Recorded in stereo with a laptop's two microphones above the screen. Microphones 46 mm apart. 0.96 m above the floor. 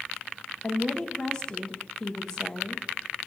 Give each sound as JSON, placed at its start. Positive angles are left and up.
{"t": 0.6, "sound": "a woman speaking", "side_deg": 15, "distance_m": 0.9}